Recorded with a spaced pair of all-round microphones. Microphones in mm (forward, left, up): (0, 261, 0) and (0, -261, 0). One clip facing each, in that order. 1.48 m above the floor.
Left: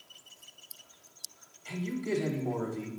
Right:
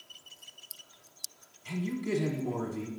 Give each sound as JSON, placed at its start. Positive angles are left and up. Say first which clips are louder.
{"t": 1.6, "sound": "a man speaking", "louder": "even", "side_deg": -30, "distance_m": 1.1}